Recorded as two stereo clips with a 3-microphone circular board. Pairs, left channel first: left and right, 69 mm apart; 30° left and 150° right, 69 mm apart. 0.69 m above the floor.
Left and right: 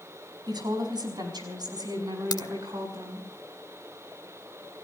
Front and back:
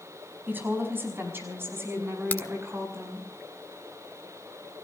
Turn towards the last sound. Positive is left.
turn(degrees=90)